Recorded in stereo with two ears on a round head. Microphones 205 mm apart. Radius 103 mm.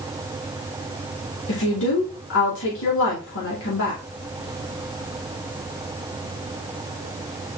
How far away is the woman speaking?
About 2.5 m.